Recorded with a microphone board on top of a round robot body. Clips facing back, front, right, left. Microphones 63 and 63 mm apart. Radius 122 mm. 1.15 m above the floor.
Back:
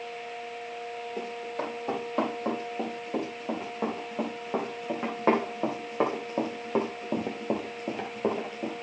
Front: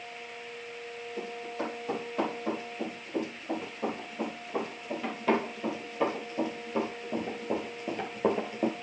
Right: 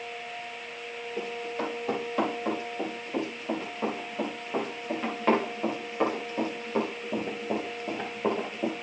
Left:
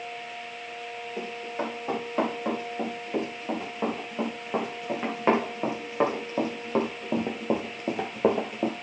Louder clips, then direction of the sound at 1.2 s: Even, even; 165° left.